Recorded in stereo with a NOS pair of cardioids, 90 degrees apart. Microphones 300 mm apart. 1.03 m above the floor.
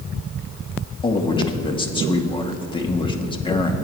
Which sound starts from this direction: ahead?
A man speaking, at 1.0 s.